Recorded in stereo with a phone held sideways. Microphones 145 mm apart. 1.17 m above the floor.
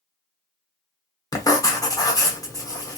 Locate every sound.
1.3 s writing: 25° left (ahead or behind), 1.0 m